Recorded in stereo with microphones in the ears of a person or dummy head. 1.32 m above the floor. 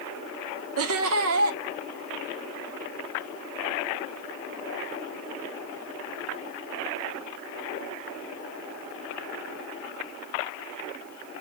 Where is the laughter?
75° right (ahead or behind), 0.9 m.